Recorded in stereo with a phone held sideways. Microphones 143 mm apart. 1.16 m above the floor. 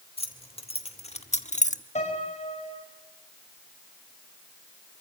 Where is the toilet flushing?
No toilet flushing in this recording.